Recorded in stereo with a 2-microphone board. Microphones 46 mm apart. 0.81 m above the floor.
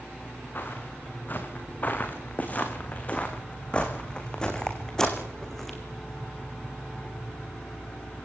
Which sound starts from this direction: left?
Footsteps, at 0.6 s.